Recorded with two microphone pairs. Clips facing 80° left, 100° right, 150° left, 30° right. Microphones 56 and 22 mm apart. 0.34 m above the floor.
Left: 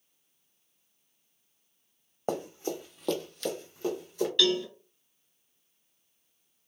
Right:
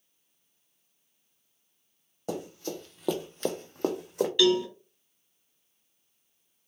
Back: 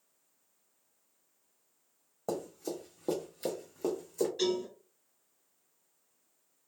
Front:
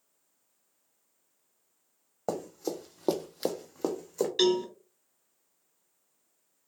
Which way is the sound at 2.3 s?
30° left.